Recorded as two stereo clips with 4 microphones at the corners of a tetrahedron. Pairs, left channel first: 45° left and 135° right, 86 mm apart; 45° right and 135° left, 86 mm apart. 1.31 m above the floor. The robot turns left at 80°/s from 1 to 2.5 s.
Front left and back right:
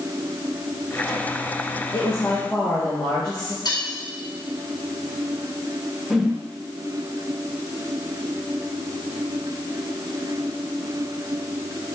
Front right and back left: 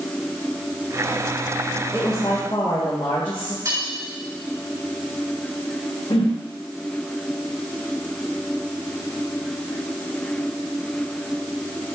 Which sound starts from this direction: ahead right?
A whoosh, at 6.1 s.